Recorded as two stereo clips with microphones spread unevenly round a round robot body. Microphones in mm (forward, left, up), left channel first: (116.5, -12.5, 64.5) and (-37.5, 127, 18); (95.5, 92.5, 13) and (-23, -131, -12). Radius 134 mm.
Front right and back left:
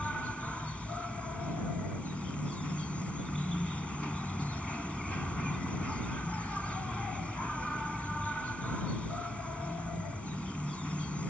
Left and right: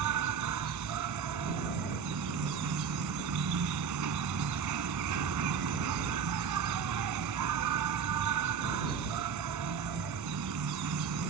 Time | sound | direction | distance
0.0 | an insect | 130° right | ?